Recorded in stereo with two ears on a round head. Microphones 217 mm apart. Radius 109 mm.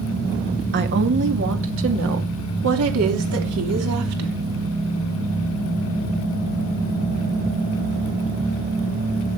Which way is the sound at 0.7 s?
45° right (ahead or behind).